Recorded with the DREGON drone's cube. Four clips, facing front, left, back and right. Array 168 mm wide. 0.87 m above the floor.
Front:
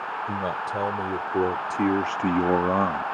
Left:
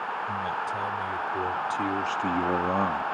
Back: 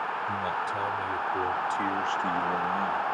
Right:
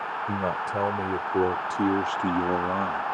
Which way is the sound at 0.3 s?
60° right.